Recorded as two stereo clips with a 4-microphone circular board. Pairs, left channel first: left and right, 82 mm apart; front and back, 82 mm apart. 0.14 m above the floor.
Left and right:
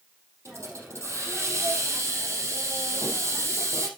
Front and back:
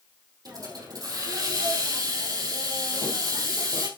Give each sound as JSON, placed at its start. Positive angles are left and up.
{"t": 0.5, "sound": "a hiss", "azimuth_deg": -145, "distance_m": 3.0}